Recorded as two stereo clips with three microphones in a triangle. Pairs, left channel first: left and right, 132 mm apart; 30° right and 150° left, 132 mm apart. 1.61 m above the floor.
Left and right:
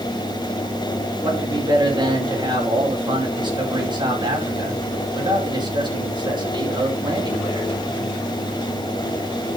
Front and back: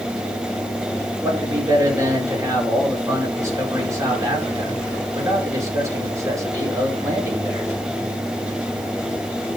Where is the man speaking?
145° right, 4.5 m.